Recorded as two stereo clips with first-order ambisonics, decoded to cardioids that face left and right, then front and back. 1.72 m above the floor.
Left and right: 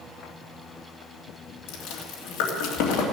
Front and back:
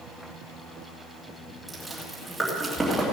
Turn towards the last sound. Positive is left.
turn(degrees=85)